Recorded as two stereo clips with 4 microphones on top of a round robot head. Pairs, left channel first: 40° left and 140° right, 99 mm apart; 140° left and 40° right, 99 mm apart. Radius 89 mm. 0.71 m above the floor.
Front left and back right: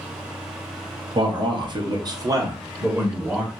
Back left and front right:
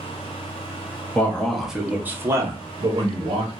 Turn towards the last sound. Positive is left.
turn(degrees=-65)